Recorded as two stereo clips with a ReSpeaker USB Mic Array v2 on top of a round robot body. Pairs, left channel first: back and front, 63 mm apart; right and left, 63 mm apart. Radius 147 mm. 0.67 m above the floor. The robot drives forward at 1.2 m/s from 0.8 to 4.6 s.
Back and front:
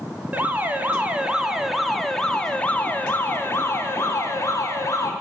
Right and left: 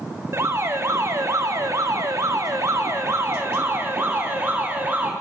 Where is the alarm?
60° left, 3 m; by 5.1 s 145° left, 4 m.